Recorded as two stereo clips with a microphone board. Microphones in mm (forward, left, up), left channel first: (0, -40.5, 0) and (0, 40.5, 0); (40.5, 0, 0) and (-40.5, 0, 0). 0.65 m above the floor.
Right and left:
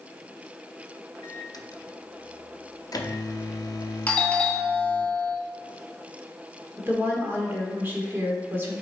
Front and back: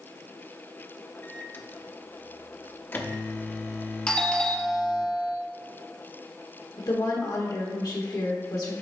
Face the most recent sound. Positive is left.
turn(degrees=30)